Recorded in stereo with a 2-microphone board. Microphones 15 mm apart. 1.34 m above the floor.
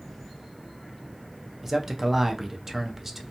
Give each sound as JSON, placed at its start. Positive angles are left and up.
{"t": 1.6, "sound": "a man speaking", "side_deg": -25, "distance_m": 0.5}